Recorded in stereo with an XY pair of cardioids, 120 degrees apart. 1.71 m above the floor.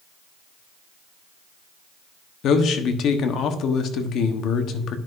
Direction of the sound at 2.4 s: 65° left.